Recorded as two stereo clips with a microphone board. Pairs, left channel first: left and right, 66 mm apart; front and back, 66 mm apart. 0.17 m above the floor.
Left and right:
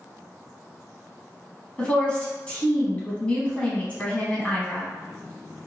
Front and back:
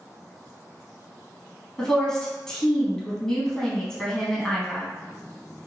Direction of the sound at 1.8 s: 60° left.